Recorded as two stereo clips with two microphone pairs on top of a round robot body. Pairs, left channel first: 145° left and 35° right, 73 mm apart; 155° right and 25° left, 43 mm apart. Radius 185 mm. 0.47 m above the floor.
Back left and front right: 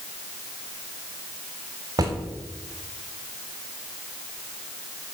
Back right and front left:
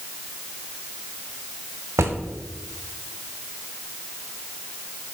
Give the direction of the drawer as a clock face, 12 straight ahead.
12 o'clock.